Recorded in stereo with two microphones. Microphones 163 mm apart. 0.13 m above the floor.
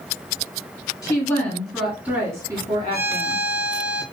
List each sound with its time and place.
1.0 s a woman speaking: 20° left (ahead or behind), 1.5 m; by 3.4 s 40° right (ahead or behind), 2.0 m
2.9 s a violin: 85° left, 1.0 m